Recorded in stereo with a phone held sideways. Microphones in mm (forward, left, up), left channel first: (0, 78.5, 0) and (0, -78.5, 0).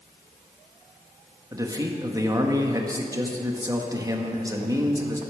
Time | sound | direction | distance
1.5 | a man speaking | 20° right (ahead or behind) | 1.5 m